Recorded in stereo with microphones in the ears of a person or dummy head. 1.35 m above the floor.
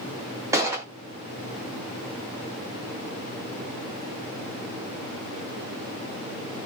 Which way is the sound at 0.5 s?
10° right (ahead or behind).